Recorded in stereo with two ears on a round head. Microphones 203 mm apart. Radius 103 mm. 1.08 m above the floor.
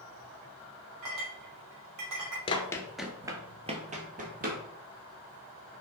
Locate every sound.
1.0 s a clink: 85° right, 2.5 m
2.5 s running footsteps: 25° left (ahead or behind), 1.1 m; by 4.6 s 40° right (ahead or behind), 2.5 m